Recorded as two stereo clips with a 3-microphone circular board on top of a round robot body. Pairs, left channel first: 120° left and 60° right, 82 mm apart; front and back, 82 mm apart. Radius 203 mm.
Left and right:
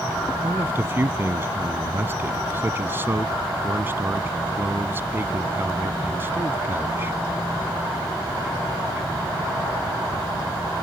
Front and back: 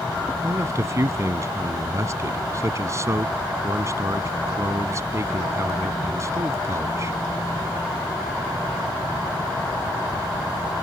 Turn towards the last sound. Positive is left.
turn(degrees=-125)